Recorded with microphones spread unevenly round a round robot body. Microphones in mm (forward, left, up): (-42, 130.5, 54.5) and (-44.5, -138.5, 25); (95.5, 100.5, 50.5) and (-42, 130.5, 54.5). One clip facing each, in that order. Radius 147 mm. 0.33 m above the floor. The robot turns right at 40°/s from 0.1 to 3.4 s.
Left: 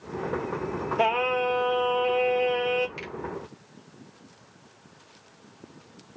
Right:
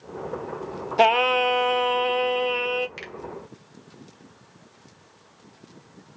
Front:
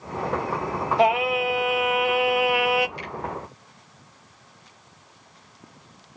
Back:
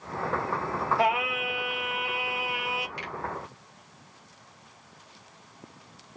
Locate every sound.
1.0 s singing: 80° right, 0.6 m; by 2.9 s 5° right, 0.6 m
3.0 s a finger snap: 150° right, 2.5 m; by 3.1 s 145° right, 2.5 m